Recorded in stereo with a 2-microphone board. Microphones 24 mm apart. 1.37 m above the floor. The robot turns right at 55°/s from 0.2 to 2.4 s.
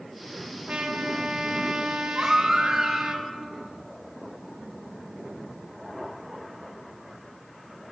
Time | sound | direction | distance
0.7 | a trumpet | 140° right | 0.9 m
2.1 | a baby crying | 40° right (ahead or behind) | 1.9 m